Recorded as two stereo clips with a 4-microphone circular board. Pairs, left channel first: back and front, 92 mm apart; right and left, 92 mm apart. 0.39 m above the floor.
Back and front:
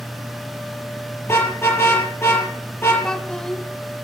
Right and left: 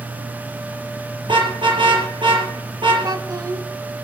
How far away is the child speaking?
About 1.3 m.